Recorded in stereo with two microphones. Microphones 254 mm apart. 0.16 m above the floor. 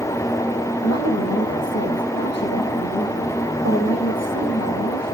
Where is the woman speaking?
80° left, 8 m.